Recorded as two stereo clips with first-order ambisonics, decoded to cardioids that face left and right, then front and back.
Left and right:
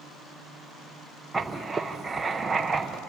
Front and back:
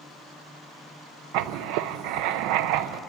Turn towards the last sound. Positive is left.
turn(degrees=-170)